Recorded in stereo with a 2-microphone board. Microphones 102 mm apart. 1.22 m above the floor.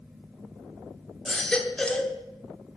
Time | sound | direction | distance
1.2 | a baby crying | 5° left (ahead or behind) | 1.1 m